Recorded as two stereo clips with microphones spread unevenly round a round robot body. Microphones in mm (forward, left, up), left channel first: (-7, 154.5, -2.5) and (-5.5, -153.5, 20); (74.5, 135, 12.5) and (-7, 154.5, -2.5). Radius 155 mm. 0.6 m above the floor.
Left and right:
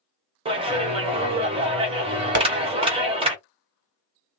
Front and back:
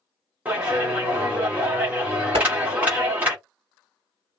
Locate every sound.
0.5 s a clap: 155° right, 1.0 m
2.4 s tapping: 150° right, 1.5 m